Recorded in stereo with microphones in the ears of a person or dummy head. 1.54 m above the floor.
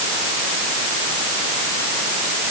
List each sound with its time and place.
Only background noise.